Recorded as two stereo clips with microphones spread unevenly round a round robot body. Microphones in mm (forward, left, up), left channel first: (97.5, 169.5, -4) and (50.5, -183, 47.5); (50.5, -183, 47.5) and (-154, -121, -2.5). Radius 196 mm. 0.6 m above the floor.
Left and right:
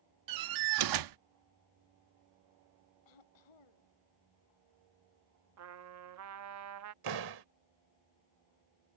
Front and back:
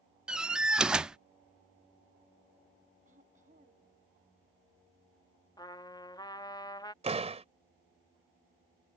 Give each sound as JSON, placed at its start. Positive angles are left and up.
{"t": 0.3, "sound": "a door slam", "azimuth_deg": -120}
{"t": 3.0, "sound": "throat clearing", "azimuth_deg": 90}
{"t": 5.6, "sound": "a trumpet", "azimuth_deg": -100}
{"t": 7.0, "sound": "a door slam", "azimuth_deg": -135}